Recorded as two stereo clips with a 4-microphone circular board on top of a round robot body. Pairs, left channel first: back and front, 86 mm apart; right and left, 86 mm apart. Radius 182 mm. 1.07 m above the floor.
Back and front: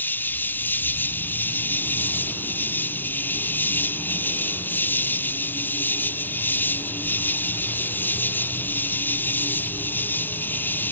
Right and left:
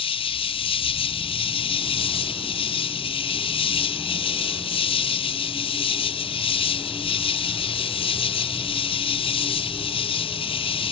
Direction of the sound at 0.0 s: 110° right.